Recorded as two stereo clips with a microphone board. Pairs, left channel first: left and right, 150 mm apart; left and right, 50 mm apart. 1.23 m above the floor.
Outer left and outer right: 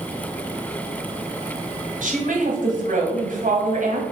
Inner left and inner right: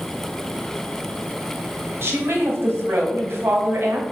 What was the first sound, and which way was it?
A woman speaking, 65° right (ahead or behind).